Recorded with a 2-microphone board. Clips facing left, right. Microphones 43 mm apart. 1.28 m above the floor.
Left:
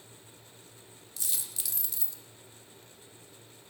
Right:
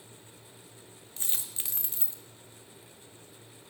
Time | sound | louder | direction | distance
1.2 | a dropped coin | right 1 dB | 35° right (ahead or behind) | 1.0 m